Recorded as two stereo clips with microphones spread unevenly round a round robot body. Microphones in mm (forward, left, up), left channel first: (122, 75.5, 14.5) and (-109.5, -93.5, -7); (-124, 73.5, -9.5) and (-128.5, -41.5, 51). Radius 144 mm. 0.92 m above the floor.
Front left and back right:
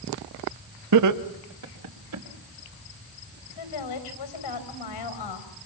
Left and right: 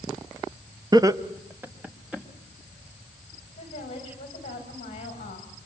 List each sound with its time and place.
0.9 s laughter: 160° right, 1.4 m; by 2.2 s straight behind, 3 m
3.6 s a woman speaking: 35° left, 5 m